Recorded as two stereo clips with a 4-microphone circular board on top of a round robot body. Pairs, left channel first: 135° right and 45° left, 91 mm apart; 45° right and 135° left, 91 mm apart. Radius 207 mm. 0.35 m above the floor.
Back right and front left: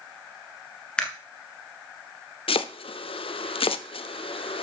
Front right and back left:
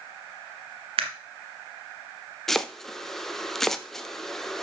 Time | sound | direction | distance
1.0 | a camera shutter | 145° left | 1.4 m
2.5 | chopping | 130° right | 0.6 m